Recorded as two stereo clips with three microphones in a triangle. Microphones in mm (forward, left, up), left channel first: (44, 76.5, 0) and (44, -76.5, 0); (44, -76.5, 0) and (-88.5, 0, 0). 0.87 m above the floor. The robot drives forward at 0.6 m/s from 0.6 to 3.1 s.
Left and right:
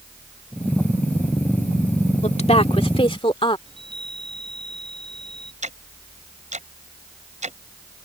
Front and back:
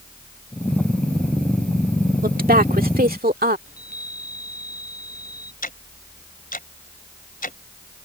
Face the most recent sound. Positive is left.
turn(degrees=-50)